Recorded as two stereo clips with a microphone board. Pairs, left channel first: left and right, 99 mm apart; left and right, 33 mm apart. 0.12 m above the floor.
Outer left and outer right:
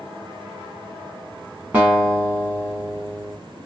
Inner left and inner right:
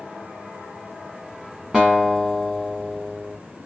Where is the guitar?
15° right (ahead or behind), 2.5 m.